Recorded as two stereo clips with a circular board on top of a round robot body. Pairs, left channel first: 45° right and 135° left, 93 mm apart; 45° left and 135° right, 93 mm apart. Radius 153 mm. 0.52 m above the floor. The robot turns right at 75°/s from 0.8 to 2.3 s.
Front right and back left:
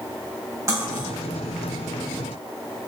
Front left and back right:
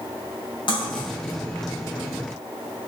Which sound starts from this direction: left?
Cutlery clinking, at 0.7 s.